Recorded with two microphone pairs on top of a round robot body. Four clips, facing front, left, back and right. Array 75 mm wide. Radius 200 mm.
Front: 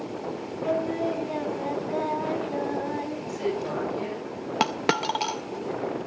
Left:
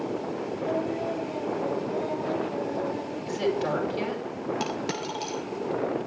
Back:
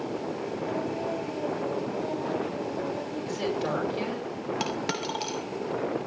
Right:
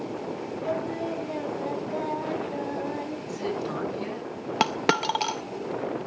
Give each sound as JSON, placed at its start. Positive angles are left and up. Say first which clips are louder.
{"t": 0.6, "sound": "singing", "louder": "left 1 dB, front 6 dB", "azimuth_deg": -35, "distance_m": 4.5}
{"t": 3.3, "sound": "a woman speaking", "louder": "left 6 dB, back 1 dB", "azimuth_deg": 120, "distance_m": 9.0}
{"t": 4.6, "sound": "a dropped coin", "louder": "right 6 dB, front 9 dB", "azimuth_deg": -60, "distance_m": 0.6}